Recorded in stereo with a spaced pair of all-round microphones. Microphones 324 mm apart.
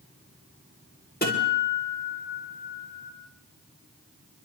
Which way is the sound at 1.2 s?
30° left (ahead or behind).